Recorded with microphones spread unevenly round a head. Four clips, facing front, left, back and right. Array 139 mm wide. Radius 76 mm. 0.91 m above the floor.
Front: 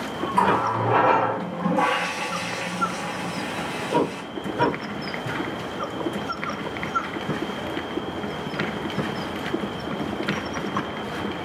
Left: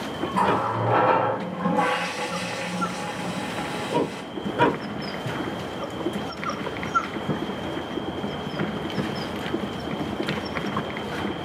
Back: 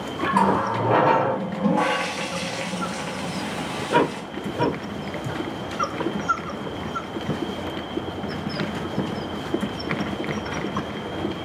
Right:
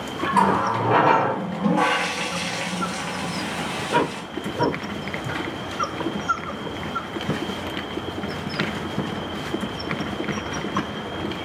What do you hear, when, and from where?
0.3 s a running tap: 135° right, 0.8 m